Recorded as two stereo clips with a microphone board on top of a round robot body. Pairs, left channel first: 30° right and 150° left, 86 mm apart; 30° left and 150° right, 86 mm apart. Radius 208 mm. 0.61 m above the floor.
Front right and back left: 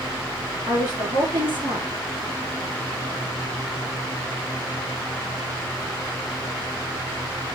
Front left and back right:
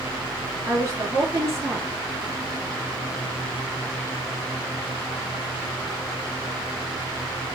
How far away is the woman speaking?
About 2.0 m.